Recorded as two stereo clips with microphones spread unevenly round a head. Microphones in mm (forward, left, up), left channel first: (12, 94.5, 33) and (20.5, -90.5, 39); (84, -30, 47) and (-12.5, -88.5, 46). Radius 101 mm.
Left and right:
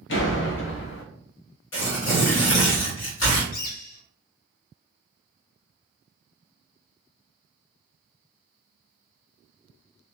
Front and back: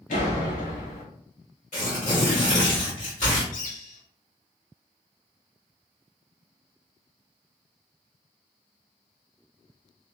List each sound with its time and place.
0.1 s a door slam: 65° left, 0.7 m
1.7 s tearing paper: 85° left, 1.2 m
3.5 s a bird: 50° left, 0.6 m